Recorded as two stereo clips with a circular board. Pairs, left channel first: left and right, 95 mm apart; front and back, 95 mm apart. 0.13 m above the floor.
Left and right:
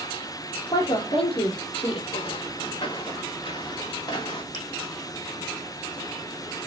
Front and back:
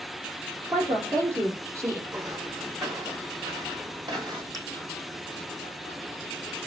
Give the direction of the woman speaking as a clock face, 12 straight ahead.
8 o'clock.